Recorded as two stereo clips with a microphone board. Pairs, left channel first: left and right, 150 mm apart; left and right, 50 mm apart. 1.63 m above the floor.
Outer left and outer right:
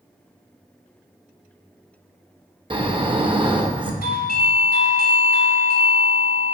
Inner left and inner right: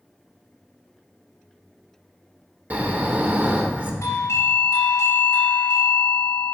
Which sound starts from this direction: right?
Snoring, at 2.7 s.